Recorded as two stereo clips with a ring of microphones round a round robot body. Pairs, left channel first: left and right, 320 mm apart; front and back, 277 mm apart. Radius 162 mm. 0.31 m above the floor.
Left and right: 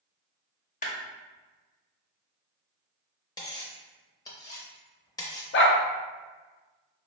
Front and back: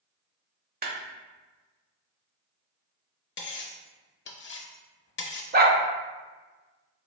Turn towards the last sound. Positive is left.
turn(degrees=135)